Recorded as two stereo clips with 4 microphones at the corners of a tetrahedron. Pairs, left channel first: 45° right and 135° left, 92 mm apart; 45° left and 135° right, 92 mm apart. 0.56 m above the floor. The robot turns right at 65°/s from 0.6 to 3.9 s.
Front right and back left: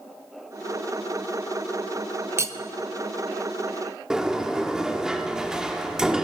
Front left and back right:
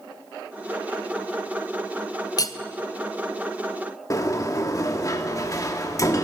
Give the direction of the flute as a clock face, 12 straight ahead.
No flute in this recording.